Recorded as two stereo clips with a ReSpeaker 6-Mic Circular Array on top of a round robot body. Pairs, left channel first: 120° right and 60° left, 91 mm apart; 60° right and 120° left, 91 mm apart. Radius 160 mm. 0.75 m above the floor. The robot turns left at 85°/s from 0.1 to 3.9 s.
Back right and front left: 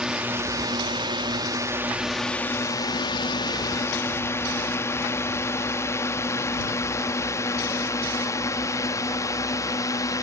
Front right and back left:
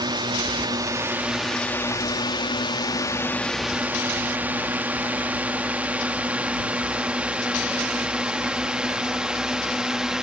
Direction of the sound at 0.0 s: 140° left.